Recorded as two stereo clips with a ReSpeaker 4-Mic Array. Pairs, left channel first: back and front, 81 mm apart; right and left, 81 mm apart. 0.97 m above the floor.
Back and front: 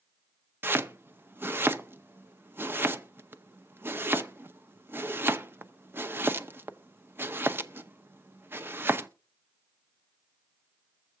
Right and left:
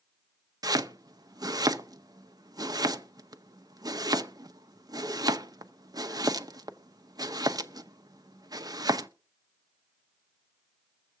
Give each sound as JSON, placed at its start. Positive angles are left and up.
{"t": 0.6, "sound": "chopping", "azimuth_deg": 60, "distance_m": 0.6}